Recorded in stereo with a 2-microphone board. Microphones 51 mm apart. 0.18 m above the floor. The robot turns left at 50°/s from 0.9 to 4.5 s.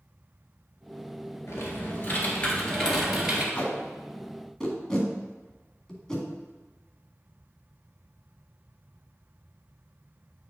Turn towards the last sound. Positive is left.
turn(degrees=10)  # may be behind; listen again after turning